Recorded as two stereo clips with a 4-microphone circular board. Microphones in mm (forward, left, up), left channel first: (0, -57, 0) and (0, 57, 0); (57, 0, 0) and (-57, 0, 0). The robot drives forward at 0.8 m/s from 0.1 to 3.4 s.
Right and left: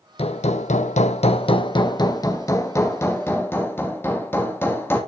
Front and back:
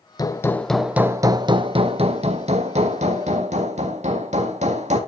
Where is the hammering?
55° right, 0.9 m; by 5.0 s 160° right, 2 m.